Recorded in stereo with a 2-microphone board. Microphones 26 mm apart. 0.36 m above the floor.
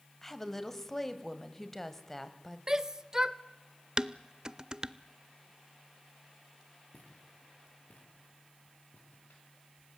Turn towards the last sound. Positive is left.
turn(degrees=80)